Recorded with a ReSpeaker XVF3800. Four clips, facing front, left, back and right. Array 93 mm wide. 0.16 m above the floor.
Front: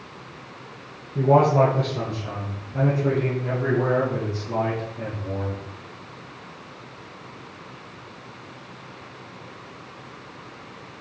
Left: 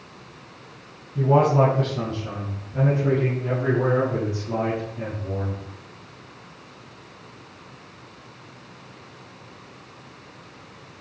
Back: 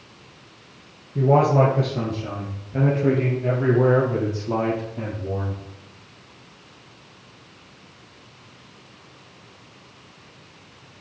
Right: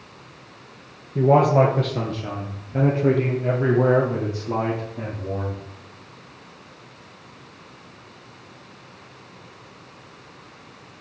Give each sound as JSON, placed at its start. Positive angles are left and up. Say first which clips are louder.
{"t": 1.1, "sound": "a man speaking", "louder": "right 2 dB, even", "azimuth_deg": -105, "distance_m": 3.0}